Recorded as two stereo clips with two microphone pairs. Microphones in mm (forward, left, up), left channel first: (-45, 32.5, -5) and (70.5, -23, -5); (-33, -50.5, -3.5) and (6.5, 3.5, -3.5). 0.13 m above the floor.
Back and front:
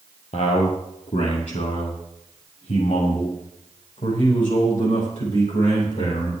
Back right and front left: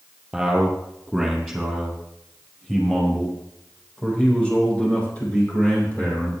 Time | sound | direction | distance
0.3 | a man speaking | 135° left | 4.5 m